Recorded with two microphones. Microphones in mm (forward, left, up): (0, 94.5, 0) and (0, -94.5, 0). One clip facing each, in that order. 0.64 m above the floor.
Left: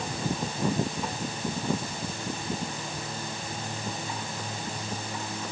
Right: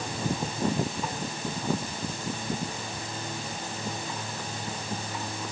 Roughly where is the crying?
No crying in this recording.